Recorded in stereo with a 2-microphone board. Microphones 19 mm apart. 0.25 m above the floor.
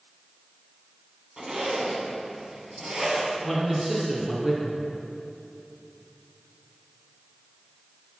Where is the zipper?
35° right (ahead or behind), 1.4 m.